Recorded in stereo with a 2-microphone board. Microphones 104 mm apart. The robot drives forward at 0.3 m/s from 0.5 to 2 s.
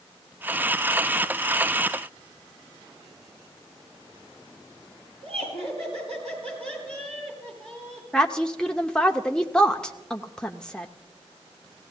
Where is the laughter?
80° right, 9 m.